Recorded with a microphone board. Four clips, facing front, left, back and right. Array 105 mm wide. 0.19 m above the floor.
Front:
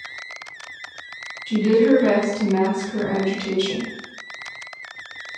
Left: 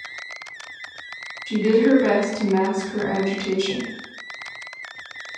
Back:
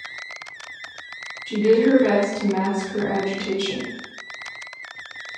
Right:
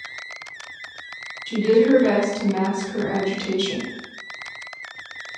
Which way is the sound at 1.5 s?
105° left.